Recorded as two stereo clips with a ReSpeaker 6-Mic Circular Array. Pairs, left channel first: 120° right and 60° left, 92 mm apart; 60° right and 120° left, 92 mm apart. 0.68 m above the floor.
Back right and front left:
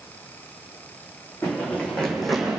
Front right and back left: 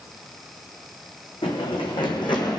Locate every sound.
1.4 s running footsteps: 55° right, 2.5 m; by 2.6 s 20° right, 1.8 m